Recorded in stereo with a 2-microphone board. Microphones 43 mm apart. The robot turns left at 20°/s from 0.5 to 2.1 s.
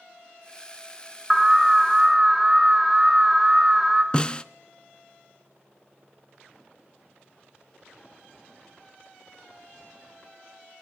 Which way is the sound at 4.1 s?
25° left (ahead or behind).